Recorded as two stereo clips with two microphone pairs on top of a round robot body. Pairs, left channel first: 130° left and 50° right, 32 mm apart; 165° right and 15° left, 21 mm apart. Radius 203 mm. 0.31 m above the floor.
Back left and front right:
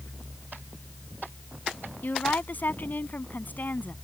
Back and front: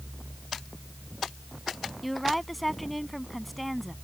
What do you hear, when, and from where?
2.0 s a woman speaking: 110° left